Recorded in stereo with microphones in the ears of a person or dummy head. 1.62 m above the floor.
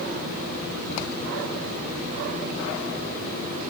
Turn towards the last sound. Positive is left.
No sound to turn to.